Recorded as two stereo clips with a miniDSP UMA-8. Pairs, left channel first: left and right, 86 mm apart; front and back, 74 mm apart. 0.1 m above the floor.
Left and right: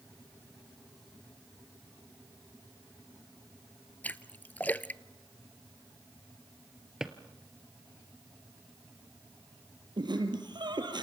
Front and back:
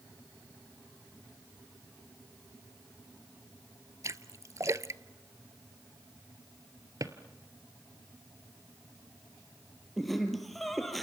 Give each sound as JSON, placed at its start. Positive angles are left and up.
{"t": 4.0, "sound": "a splash", "azimuth_deg": 155, "distance_m": 0.5}
{"t": 7.0, "sound": "a drawer", "azimuth_deg": -170, "distance_m": 1.3}
{"t": 10.0, "sound": "laughter", "azimuth_deg": -90, "distance_m": 3.0}